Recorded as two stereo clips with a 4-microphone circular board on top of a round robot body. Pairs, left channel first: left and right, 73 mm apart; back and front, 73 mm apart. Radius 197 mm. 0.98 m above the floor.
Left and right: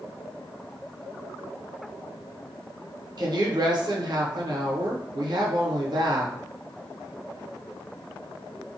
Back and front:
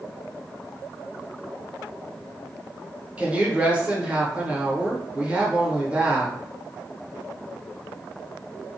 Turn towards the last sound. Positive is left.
turn(degrees=-75)